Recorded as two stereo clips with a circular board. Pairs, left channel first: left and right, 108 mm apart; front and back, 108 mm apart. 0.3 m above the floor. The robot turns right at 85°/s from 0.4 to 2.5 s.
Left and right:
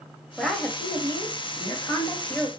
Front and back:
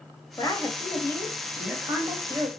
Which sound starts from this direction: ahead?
A woman speaking, at 0.4 s.